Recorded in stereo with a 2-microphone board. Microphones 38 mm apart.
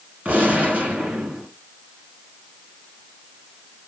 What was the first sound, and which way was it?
A gunshot, 40° right (ahead or behind).